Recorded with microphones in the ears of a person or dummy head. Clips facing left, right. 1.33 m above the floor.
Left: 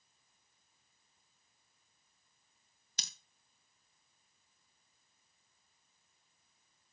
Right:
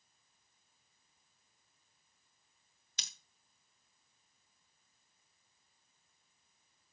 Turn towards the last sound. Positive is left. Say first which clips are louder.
# left 2 dB
turn(degrees=40)  # may be behind; listen again after turning